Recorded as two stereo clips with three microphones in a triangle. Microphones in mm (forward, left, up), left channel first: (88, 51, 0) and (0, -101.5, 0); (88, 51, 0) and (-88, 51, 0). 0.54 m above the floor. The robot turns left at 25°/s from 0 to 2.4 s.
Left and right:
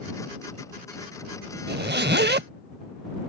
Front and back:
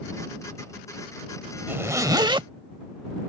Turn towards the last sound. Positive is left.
turn(degrees=-120)